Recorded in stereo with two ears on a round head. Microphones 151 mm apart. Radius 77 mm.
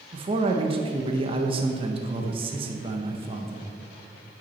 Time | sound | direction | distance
0.1 | a man speaking | 35° right (ahead or behind) | 1.1 m